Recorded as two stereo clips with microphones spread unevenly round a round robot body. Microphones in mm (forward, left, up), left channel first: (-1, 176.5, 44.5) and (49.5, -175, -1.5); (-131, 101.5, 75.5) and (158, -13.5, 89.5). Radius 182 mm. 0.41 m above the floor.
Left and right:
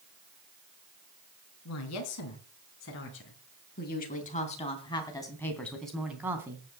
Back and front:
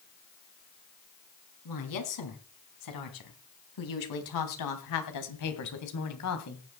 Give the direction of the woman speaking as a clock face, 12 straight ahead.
7 o'clock.